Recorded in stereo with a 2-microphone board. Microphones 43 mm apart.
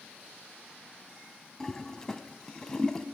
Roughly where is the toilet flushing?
Centre.